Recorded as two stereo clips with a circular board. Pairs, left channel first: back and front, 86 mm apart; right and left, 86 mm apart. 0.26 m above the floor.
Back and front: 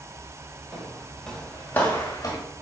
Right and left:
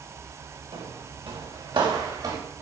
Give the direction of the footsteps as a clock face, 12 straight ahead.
9 o'clock.